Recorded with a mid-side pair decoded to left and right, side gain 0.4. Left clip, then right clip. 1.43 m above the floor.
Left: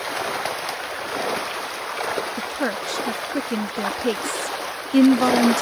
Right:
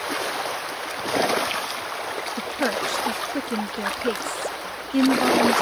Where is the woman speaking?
Straight ahead; by 5.6 s 55° left.